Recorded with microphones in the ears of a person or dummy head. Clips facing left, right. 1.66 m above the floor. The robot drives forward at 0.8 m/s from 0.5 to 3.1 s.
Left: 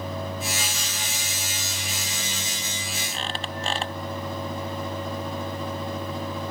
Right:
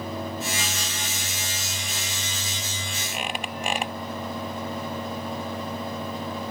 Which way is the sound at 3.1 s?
10° right (ahead or behind).